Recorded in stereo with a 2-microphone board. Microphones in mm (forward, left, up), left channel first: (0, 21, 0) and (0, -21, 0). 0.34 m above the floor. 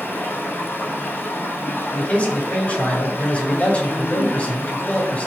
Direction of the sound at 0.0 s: 70° left (ahead or behind).